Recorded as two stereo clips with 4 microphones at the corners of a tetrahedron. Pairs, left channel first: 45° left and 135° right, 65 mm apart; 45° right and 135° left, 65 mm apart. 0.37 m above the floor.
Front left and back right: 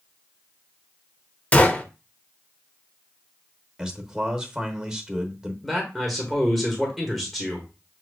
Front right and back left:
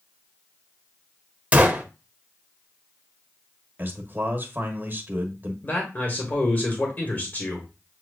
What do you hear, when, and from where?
1.5 s a gunshot: 90° left, 0.6 m
3.8 s a man speaking: 155° left, 1.0 m
5.6 s a man speaking: 45° right, 1.2 m